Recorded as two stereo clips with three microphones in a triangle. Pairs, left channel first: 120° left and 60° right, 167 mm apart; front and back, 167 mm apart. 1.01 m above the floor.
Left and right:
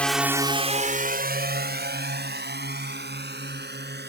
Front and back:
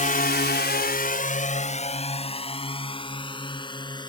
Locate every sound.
0.0 s a drone: 40° left; by 4.1 s 65° right